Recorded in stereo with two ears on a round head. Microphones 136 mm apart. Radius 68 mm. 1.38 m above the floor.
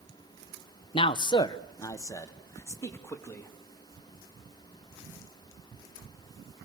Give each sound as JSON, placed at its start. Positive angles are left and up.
{"t": 0.9, "sound": "a man speaking", "side_deg": 35, "distance_m": 0.7}